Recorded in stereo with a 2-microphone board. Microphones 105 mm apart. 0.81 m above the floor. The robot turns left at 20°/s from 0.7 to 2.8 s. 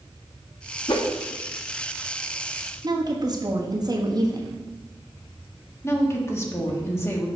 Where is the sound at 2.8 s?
40° right (ahead or behind), 1.2 m.